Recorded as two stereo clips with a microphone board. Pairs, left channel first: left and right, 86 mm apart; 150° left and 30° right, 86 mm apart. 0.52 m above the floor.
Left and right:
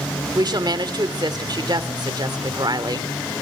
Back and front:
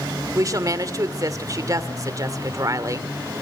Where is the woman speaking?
70° right, 1.4 m.